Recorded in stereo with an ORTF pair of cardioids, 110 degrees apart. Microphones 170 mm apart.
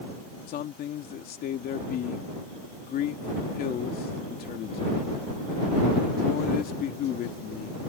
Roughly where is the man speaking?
Ahead left.